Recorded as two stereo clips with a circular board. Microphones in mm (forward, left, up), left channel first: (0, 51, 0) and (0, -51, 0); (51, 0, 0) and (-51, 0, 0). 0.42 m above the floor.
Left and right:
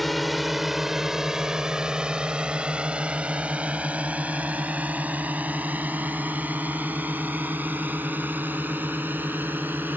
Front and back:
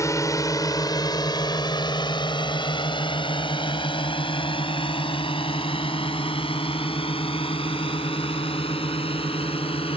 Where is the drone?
Straight ahead; by 10.0 s 20° right.